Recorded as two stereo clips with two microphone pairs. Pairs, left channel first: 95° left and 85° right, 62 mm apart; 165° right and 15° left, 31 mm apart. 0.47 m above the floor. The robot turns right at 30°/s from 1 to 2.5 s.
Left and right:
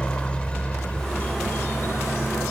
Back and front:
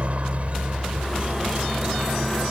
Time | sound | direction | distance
0.0 | a helicopter | 30° left | ?